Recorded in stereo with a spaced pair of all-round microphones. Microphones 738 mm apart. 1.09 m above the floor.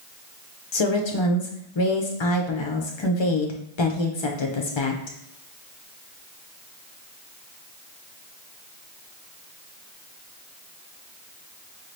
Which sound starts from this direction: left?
A woman speaking, at 0.7 s.